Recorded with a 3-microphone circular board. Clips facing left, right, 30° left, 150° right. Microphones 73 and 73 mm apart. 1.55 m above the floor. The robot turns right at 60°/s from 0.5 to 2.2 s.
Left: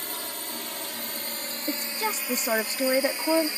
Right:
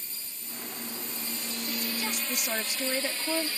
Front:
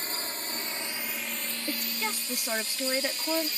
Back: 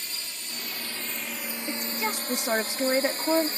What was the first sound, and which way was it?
A drone, 80° left.